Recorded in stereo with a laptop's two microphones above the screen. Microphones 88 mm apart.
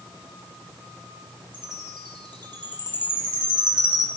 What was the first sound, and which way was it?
A chime, 55° right (ahead or behind).